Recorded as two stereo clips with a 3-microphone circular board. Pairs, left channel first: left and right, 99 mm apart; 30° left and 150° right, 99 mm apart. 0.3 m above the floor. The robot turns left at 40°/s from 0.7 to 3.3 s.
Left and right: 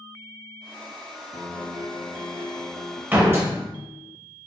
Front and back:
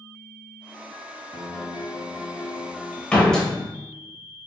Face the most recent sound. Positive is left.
turn(degrees=-50)